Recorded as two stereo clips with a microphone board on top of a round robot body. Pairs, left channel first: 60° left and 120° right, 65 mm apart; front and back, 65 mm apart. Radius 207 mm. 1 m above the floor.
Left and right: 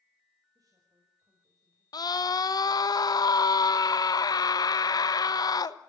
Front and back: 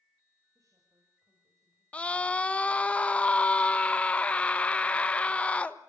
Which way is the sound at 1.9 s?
70° left.